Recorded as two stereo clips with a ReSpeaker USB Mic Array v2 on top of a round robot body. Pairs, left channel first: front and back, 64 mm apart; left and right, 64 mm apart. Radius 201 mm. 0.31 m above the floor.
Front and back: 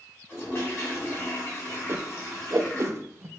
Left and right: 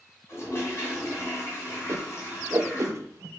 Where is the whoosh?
135° right, 0.5 m.